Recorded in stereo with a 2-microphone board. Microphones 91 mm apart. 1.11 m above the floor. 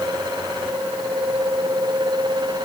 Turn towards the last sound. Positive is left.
No sound to turn to.